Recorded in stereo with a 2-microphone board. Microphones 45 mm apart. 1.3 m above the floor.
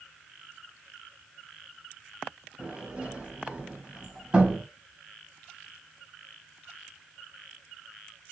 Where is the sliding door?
25° right (ahead or behind), 1.2 m.